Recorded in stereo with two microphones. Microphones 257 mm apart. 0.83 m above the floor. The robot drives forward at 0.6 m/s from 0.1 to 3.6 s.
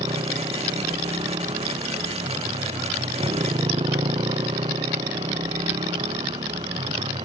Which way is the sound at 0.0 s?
20° right (ahead or behind).